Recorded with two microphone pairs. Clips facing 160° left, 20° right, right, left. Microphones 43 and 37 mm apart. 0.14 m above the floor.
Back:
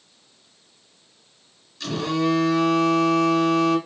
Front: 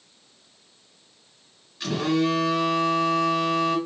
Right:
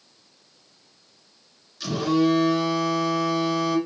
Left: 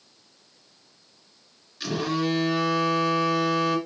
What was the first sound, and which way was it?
A phone buzzing, 35° left.